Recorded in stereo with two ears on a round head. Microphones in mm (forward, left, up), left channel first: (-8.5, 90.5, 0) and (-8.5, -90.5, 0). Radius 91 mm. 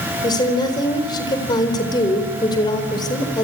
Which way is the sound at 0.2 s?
20° left (ahead or behind).